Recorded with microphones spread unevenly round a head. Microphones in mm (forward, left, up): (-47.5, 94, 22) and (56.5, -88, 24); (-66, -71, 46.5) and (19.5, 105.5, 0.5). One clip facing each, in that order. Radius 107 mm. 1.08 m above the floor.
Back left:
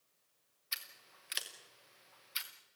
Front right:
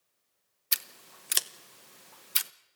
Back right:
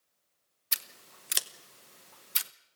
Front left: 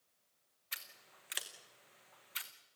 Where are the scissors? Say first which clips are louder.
Front right 8 dB, back right 6 dB; 75° right, 0.9 m.